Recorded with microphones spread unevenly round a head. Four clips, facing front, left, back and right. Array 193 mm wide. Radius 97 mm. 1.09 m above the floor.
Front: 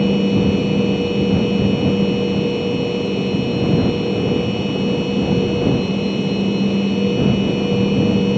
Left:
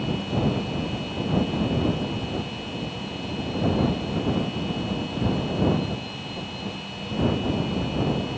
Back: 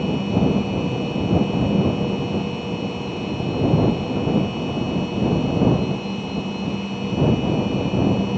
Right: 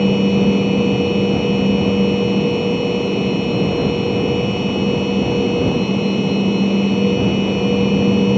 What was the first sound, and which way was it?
A machine running, 60° right.